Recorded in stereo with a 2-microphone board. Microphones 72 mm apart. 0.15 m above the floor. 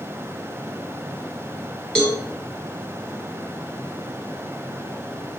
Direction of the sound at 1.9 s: 10° left (ahead or behind).